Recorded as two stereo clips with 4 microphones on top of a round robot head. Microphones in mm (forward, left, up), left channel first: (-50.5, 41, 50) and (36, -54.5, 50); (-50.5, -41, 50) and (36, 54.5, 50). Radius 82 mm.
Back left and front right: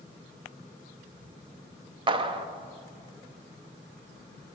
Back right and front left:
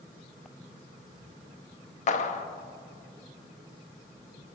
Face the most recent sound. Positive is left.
turn(degrees=-100)